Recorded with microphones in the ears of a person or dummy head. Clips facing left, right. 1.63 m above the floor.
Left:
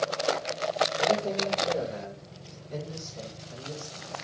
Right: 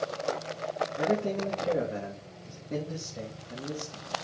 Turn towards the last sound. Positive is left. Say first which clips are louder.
# right 2 dB
turn(degrees=-45)  # may be behind; listen again after turning